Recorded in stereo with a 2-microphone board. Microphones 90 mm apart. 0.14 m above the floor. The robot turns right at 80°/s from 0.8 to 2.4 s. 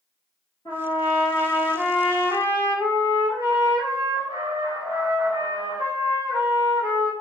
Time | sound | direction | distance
0.7 | a trumpet | 110° left | 1.5 m